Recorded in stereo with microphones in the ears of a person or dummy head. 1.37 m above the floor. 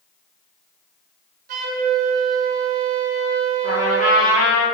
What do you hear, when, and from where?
1.5 s a flute: 50° right (ahead or behind), 0.7 m
3.6 s a trumpet: 40° left (ahead or behind), 1.6 m